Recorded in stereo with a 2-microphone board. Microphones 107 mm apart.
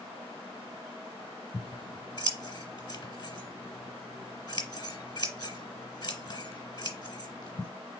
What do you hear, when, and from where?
1.5 s scissors: 45° left (ahead or behind), 1.4 m